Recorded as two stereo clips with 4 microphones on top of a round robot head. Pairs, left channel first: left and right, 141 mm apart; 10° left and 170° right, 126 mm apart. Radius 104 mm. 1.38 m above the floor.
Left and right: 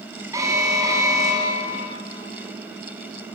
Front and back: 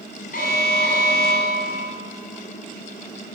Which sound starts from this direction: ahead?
An alarm, at 0.3 s.